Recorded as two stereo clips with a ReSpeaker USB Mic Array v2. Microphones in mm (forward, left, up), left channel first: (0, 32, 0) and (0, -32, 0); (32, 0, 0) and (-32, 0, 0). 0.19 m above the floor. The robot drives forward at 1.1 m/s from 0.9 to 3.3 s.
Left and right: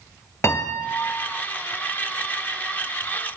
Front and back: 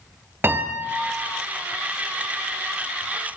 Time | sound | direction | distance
0.4 | a piano | 130° left | 1.2 m